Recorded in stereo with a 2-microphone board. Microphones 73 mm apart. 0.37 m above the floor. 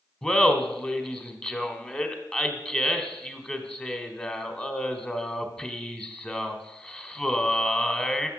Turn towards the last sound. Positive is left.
turn(degrees=15)  # may be behind; listen again after turning